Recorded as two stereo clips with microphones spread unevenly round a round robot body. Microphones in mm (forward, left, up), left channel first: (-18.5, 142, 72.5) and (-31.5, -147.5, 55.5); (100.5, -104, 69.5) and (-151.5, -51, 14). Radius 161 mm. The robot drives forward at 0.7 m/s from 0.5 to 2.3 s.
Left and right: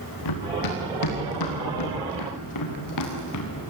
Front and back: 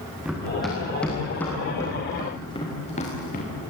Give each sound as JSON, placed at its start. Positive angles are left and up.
{"t": 0.2, "sound": "running footsteps", "azimuth_deg": 80, "distance_m": 5.5}